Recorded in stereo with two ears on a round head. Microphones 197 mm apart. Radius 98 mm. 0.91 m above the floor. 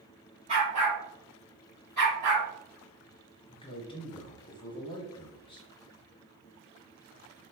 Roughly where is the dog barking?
Right.